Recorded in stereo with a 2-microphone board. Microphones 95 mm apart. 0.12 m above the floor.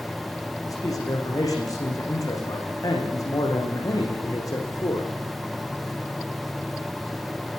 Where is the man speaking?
40° left (ahead or behind), 9 m.